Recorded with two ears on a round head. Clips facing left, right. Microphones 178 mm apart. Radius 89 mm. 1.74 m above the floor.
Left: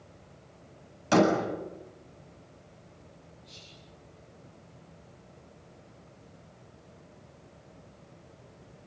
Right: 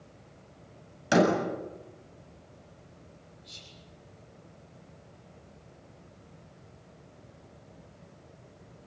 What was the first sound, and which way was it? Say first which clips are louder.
A door slam: left 1 dB; 15° right (ahead or behind).